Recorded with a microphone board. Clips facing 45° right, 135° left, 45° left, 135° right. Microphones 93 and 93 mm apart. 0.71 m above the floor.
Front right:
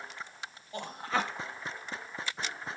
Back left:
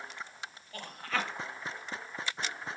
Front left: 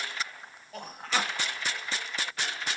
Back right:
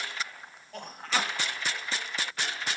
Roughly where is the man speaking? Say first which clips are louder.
Front right 4 dB, even; ahead right.